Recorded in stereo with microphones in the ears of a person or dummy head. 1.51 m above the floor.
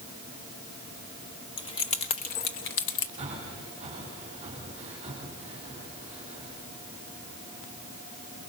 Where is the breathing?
35° right (ahead or behind), 4 m.